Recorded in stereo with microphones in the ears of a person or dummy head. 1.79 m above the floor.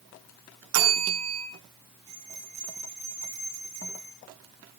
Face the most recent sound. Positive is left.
turn(degrees=-20)  # may be behind; listen again after turning